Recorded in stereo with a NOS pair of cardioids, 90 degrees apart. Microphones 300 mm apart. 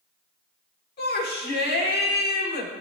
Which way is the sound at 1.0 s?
35° left.